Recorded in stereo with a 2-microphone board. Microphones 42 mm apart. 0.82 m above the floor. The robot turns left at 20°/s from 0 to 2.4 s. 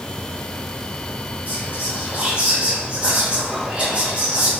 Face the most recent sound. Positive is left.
turn(degrees=-30)  # may be behind; listen again after turning